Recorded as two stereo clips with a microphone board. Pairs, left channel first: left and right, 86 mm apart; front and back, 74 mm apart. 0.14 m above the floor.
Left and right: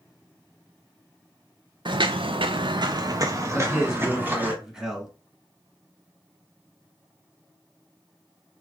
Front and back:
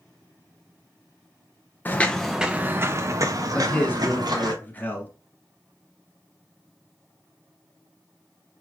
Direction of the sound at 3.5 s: 20° right.